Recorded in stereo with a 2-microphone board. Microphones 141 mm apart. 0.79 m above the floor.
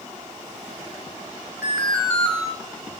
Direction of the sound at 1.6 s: 5° left (ahead or behind).